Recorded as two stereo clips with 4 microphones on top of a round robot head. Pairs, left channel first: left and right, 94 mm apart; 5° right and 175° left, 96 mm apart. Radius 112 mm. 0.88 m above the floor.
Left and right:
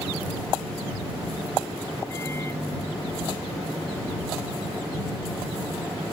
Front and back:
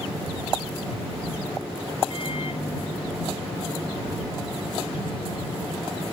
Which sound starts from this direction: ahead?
A microwave, at 2.1 s.